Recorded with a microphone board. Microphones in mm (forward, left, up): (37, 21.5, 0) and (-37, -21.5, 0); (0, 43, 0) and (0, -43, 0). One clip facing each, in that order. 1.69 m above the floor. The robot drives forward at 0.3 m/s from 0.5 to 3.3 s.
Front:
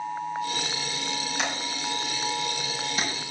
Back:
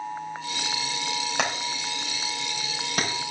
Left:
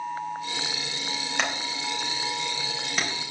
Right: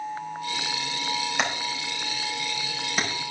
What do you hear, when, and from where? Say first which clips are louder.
1.4 s hammering: back 2 dB, right 1 dB; 175° right, 4 m